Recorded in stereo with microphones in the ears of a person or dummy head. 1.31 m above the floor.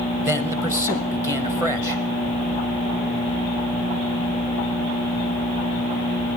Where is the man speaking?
15° right (ahead or behind), 0.8 m.